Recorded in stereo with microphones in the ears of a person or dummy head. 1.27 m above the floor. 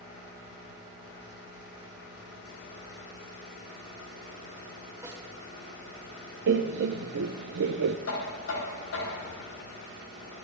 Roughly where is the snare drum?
Centre.